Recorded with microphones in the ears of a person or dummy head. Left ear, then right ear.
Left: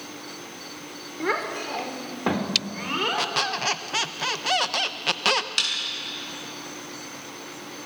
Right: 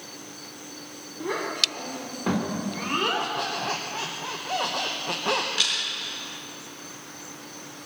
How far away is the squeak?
About 0.9 m.